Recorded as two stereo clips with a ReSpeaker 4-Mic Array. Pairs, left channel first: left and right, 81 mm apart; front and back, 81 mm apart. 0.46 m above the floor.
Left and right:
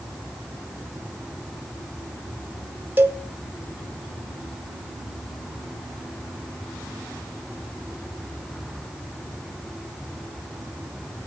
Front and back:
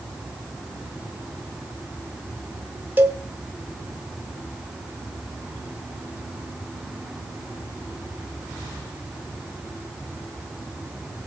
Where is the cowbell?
130° right, 1.0 m.